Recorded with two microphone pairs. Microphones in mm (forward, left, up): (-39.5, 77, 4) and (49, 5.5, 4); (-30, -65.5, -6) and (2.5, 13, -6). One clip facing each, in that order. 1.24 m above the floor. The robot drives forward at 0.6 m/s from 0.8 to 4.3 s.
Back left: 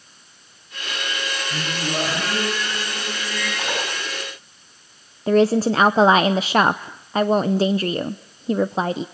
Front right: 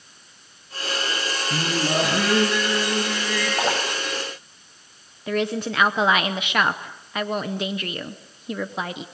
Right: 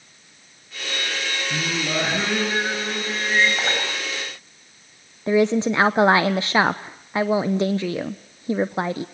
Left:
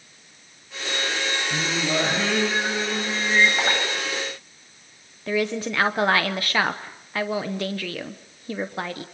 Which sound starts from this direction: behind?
A woman speaking, at 5.3 s.